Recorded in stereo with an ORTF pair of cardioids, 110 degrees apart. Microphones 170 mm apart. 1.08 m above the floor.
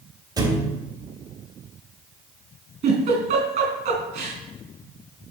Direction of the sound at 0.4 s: 25° right.